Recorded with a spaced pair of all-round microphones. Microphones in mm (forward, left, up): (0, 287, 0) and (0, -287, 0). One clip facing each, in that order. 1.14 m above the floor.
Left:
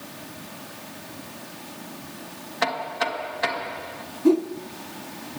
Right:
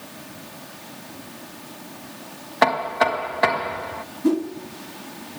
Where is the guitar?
No guitar in this recording.